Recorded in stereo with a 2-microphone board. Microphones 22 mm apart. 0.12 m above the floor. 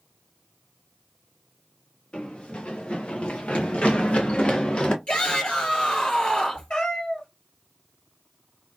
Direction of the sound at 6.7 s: 55° left (ahead or behind).